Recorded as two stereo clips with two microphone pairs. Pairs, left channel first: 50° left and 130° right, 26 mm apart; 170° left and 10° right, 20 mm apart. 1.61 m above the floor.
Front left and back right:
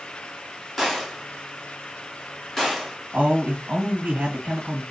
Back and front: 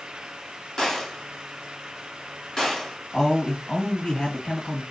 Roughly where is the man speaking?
Behind right.